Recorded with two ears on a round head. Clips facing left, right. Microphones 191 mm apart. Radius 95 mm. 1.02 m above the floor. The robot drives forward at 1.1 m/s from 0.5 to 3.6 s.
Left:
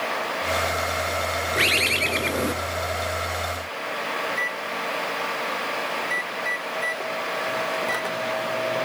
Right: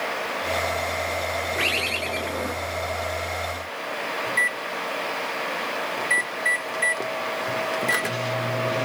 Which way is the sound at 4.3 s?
35° right (ahead or behind).